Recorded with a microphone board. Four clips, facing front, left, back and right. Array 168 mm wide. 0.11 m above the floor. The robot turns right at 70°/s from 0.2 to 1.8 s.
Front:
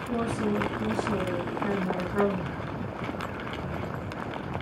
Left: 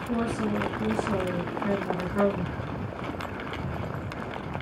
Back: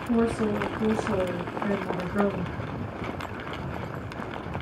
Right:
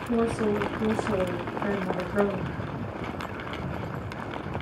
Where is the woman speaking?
175° right, 1.4 m; by 2.5 s 65° right, 1.4 m.